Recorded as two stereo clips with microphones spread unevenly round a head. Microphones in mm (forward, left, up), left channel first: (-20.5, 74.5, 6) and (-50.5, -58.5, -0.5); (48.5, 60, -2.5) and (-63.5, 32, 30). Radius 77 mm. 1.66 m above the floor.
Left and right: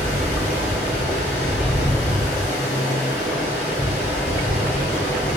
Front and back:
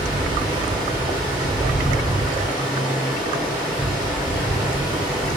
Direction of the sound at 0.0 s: 15° left.